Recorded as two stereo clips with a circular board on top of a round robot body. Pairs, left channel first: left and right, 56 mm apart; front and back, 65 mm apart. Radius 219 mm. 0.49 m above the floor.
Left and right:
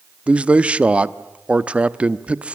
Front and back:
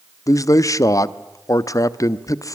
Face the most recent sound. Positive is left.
turn(degrees=-25)